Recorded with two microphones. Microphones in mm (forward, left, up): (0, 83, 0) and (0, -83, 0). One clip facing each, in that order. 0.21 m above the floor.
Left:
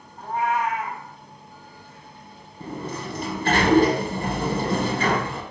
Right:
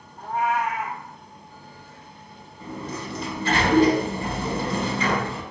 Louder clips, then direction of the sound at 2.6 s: Left 1 dB; 55° left (ahead or behind).